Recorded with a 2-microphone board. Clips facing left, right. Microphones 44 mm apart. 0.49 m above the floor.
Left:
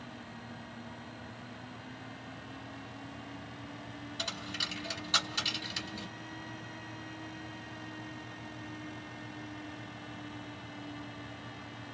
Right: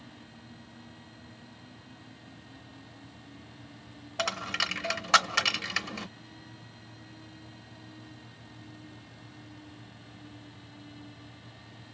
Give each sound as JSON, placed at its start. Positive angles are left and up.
{"t": 4.2, "sound": "a dropped coin", "side_deg": -85, "distance_m": 0.5}